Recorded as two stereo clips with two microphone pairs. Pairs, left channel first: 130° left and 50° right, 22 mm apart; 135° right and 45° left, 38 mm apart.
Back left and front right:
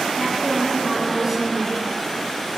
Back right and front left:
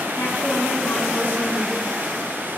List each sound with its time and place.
0.1 s a woman speaking: 145° right, 3 m